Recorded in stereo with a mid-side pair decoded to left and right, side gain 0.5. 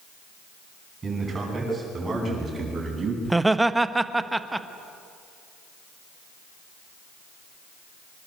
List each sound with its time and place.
1.0 s a man speaking: 35° right, 10 m; by 3.1 s 30° right, 9 m
3.2 s laughter: 10° right, 1.3 m